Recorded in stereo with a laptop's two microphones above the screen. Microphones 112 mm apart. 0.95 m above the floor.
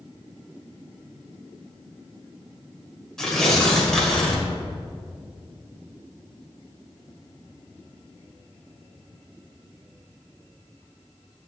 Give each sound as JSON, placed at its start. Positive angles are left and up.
{"t": 3.2, "sound": "tearing paper", "side_deg": 5, "distance_m": 1.4}